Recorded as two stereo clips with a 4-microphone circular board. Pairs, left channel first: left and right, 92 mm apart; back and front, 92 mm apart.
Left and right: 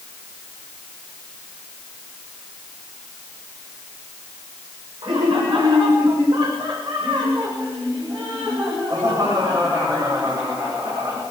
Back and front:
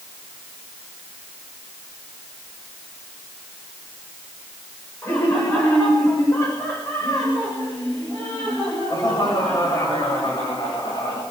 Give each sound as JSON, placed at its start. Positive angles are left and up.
{"t": 5.0, "sound": "laughter", "azimuth_deg": -115, "distance_m": 8.5}